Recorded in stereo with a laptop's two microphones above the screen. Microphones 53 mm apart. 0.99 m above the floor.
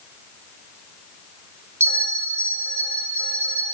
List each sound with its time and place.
1.8 s a bell: 55° right (ahead or behind), 2.5 m